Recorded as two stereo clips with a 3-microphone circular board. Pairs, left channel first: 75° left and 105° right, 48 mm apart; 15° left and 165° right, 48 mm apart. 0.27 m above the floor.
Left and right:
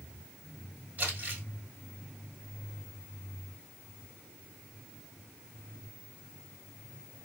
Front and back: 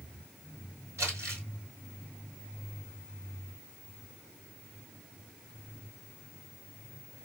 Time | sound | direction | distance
1.0 | crumpling | 155° right | 1.4 m